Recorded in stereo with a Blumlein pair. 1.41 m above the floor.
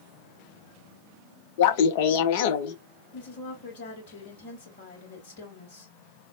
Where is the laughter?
50° left, 0.6 m.